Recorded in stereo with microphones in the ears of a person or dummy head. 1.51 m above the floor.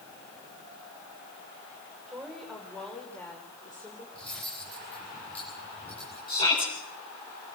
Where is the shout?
25° left (ahead or behind), 9.5 m.